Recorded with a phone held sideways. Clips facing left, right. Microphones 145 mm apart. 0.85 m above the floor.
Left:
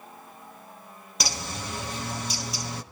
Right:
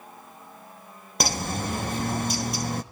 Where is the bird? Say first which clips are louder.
Right 6 dB; 55° right (ahead or behind), 1.5 m.